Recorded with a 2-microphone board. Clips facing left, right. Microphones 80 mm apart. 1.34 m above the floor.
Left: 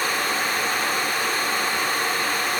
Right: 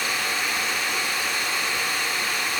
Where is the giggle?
I don't hear a giggle.